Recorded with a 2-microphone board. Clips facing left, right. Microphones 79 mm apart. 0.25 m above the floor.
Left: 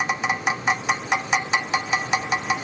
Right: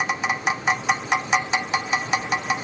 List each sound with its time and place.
Only background noise.